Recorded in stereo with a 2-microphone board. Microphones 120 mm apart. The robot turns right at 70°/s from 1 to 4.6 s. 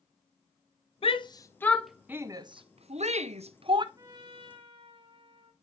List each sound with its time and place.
1.0 s a shout: 55° left (ahead or behind), 0.6 m; by 3.9 s 40° right (ahead or behind), 0.6 m
4.0 s a trumpet: 140° right, 1.5 m; by 5.5 s 95° right, 1.5 m